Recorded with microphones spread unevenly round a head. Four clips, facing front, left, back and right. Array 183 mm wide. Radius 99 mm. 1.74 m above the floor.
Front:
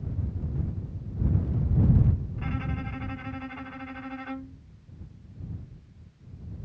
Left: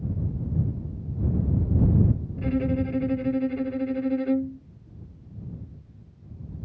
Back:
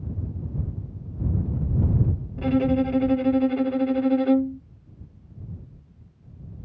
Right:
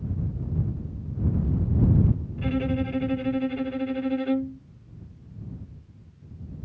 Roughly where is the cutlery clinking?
I don't hear cutlery clinking.